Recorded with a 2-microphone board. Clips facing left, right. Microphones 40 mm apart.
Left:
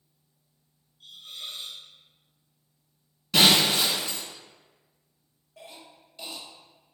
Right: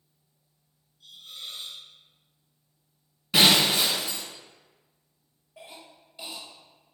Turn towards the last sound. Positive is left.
turn(degrees=-10)  # may be behind; listen again after turning